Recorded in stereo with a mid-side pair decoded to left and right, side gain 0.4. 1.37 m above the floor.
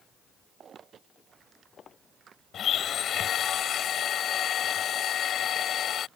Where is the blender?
70° left.